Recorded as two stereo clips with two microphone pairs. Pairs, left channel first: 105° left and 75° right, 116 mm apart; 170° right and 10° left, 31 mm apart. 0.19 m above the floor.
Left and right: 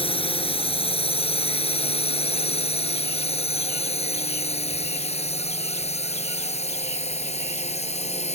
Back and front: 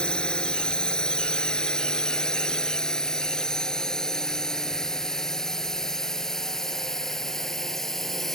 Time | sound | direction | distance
0.0 | a drone | 135° left | ?